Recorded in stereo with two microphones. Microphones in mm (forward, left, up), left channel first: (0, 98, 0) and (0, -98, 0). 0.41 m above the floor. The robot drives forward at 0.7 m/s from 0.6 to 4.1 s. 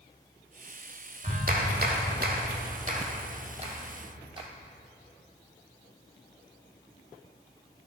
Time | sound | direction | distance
1.2 | a clap | 45° right (ahead or behind) | 1.2 m